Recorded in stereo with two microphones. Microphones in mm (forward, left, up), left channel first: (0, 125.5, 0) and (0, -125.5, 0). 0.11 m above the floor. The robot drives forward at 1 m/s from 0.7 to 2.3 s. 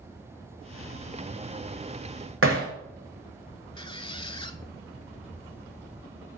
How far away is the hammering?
About 2.0 m.